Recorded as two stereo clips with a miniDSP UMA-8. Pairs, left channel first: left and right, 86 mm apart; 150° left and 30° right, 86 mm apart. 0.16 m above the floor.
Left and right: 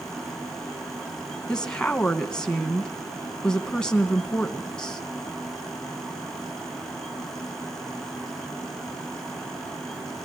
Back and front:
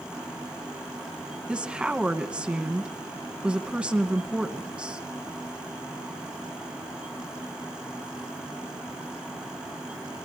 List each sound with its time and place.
1.5 s a woman speaking: 25° left, 1.1 m